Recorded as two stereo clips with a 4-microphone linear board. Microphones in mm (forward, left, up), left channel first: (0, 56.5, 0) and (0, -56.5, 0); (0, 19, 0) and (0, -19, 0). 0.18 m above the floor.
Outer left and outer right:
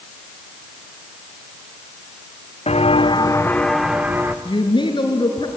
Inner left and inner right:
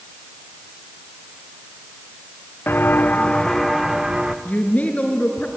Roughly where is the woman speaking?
Left.